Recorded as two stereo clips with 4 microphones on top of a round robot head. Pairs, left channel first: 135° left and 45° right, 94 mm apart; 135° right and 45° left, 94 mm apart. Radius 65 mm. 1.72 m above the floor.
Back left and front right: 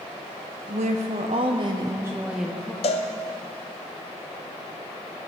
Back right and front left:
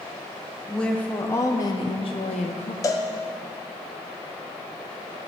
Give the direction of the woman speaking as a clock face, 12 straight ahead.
2 o'clock.